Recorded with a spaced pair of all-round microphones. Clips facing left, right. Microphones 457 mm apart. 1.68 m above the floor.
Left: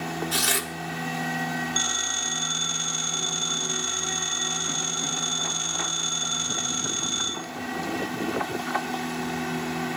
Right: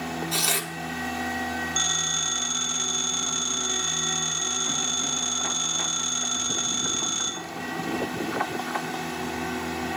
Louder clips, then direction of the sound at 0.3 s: Left 1 dB; 35° left (ahead or behind).